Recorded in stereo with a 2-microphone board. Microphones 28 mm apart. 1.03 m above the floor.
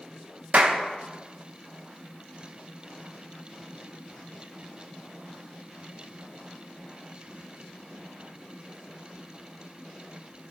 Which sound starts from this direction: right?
A clap, at 0.5 s.